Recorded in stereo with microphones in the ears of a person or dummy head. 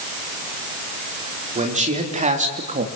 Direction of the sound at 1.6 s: 35° right (ahead or behind).